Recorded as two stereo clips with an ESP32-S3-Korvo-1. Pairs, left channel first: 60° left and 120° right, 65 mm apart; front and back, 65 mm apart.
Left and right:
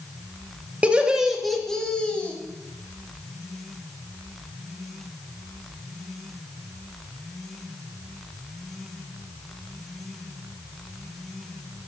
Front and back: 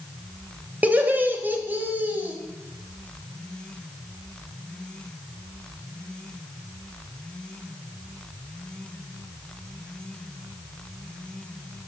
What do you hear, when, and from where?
0.8 s laughter: 160° right, 1.0 m; by 2.4 s 125° left, 1.4 m